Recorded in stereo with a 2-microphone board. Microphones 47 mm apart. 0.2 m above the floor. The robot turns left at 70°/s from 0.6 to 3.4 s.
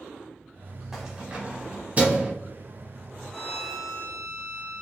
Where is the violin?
10° left (ahead or behind), 1.1 m; by 4.8 s 5° left (ahead or behind), 1.1 m.